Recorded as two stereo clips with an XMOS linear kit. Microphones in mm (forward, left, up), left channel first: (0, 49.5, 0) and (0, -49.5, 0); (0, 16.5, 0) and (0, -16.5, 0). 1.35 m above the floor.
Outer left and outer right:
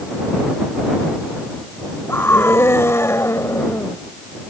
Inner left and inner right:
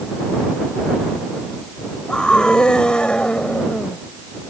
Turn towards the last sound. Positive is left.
turn(degrees=30)  # may be behind; listen again after turning